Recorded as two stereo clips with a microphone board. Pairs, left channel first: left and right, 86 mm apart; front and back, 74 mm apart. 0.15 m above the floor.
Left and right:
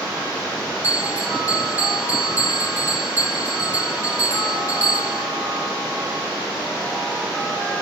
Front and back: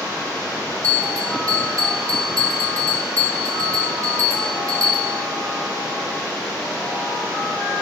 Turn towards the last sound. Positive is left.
turn(degrees=-145)